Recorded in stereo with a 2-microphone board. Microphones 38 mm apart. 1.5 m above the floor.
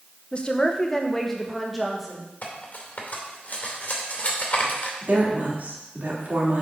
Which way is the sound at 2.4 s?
45° left (ahead or behind).